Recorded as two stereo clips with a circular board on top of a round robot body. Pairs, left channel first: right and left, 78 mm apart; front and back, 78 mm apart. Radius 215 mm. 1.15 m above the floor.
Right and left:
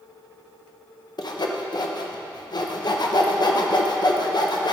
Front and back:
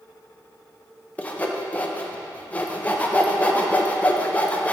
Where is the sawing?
70° right, 0.9 m.